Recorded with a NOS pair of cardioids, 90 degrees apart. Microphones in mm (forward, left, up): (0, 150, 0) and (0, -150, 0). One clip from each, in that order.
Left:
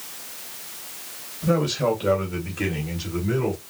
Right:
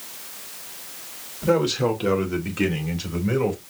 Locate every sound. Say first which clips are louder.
1.4 s a man speaking: right 2 dB; 45° right, 2.5 m; by 3.6 s 75° right, 2.5 m